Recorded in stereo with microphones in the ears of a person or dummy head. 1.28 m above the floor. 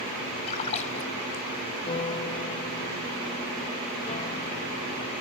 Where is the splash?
35° left (ahead or behind).